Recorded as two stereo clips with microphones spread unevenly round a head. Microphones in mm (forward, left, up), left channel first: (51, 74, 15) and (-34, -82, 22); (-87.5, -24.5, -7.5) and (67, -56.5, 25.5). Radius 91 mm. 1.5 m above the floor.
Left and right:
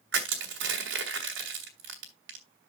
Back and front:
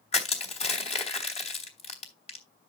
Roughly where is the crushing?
Behind right.